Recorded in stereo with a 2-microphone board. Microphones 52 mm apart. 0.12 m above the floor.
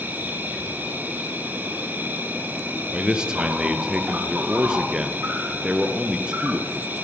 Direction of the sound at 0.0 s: 35° right (ahead or behind).